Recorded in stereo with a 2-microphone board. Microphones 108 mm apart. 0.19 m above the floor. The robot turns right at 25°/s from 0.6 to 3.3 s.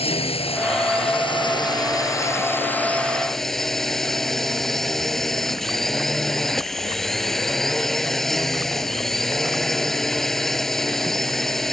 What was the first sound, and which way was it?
A drone, 110° left.